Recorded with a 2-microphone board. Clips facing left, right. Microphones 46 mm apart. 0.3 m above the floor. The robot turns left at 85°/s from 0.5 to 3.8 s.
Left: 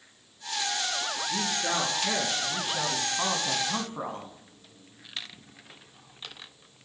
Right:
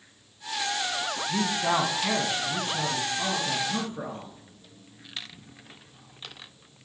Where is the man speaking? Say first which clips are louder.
Right 5 dB; 65° right, 2 m; by 4.3 s 80° left, 2 m.